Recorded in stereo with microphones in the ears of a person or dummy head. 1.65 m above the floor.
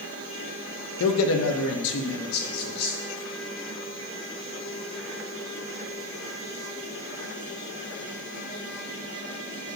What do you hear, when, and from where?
1.0 s a man speaking: 75° left (ahead or behind), 0.6 m; by 3.0 s 55° left (ahead or behind), 1.4 m